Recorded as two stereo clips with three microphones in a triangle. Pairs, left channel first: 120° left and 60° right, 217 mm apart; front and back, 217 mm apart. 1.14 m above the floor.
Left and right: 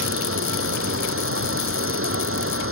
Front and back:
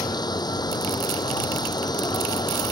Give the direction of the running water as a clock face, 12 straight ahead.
2 o'clock.